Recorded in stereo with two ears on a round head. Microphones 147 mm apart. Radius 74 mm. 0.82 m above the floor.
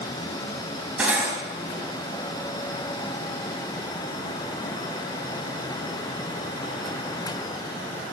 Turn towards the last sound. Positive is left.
turn(degrees=-10)  # may be behind; listen again after turning